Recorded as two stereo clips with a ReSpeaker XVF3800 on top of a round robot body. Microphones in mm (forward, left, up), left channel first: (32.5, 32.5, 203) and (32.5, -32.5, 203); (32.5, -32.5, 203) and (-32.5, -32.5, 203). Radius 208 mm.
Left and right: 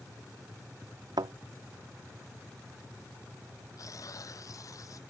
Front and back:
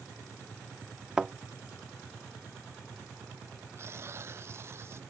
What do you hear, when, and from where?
1.2 s a thud: 100° right
3.8 s tearing paper: 130° left